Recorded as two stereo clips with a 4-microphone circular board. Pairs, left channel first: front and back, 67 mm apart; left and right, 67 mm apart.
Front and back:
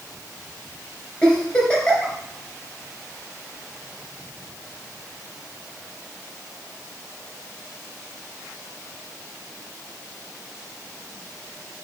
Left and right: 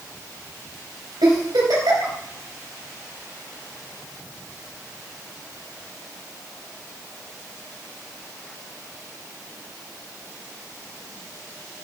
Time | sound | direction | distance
1.2 | a giggle | 75° right | 3 m